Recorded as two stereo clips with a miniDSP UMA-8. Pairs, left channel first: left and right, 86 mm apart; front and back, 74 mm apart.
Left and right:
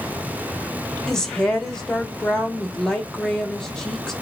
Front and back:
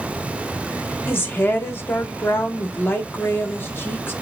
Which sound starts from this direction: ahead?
A woman speaking, at 1.1 s.